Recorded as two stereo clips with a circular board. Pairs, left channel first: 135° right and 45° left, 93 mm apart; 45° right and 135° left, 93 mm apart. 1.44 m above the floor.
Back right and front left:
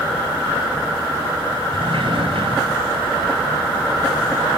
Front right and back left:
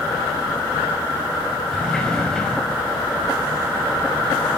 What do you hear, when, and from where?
1.7 s a sliding door: 35° left, 3 m